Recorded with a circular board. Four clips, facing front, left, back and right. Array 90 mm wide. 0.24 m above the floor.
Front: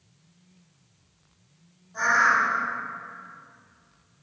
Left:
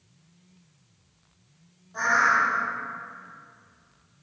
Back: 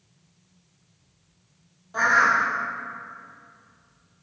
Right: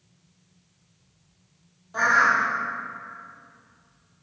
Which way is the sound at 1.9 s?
140° right.